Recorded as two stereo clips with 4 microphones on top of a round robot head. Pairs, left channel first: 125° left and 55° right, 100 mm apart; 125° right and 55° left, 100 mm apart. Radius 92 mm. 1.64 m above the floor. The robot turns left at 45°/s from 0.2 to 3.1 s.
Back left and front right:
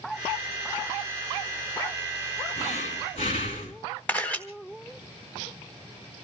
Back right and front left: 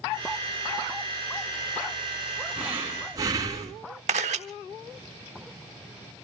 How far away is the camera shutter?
About 1.1 m.